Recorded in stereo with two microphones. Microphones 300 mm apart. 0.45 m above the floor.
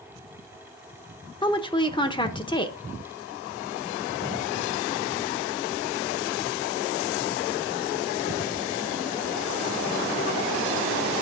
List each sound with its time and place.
1.4 s a woman speaking: 15° left (ahead or behind), 0.9 m